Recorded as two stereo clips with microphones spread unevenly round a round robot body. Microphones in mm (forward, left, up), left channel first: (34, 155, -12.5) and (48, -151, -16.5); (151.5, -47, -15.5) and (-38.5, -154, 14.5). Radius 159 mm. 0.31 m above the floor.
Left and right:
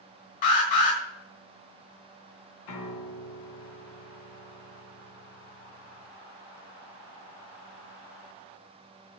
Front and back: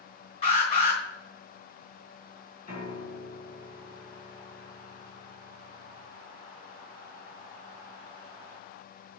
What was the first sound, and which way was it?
An alarm, 95° left.